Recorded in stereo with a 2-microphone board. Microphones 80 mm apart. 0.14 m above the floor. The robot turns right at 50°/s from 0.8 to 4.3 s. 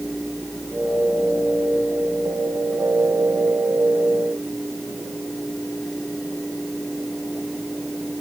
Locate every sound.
Only background noise.